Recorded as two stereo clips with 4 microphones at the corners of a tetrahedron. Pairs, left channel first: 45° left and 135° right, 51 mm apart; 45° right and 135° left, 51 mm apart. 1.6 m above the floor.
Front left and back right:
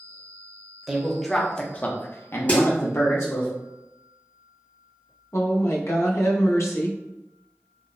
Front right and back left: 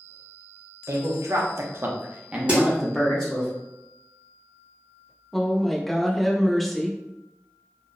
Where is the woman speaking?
40° left, 0.6 m.